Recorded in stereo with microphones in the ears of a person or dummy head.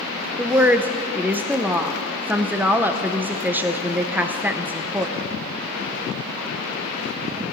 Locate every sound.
0.4 s a woman speaking: 10° right (ahead or behind), 0.8 m